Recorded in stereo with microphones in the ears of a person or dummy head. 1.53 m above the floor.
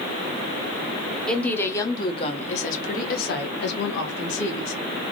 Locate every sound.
1.3 s a woman speaking: centre (ahead or behind), 1.1 m; by 4.7 s 70° left (ahead or behind), 1.9 m